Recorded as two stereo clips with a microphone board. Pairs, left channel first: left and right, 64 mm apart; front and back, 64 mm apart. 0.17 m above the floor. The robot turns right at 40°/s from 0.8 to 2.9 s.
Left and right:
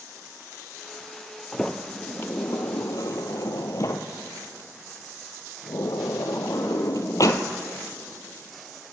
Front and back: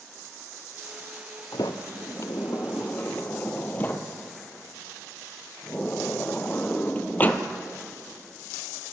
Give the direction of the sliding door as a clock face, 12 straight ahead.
12 o'clock.